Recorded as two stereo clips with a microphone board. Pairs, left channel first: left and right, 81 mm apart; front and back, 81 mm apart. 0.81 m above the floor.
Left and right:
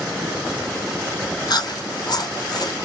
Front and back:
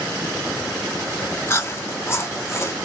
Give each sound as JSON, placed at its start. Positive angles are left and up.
{"t": 1.5, "sound": "chewing", "azimuth_deg": 55, "distance_m": 0.6}